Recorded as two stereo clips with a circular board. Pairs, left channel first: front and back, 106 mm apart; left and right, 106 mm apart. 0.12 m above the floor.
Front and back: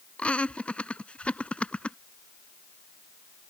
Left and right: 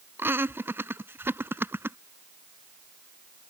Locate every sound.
0.2 s laughter: 60° right